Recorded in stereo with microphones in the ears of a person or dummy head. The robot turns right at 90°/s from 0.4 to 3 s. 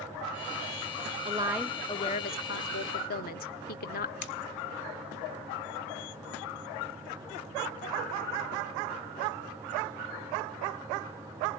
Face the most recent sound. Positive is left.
turn(degrees=65)  # may be behind; listen again after turning